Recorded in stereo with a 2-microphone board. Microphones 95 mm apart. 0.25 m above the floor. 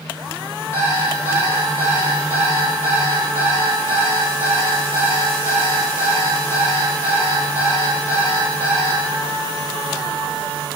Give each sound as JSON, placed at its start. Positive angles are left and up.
{"t": 0.7, "sound": "an alarm clock", "side_deg": 30, "distance_m": 1.5}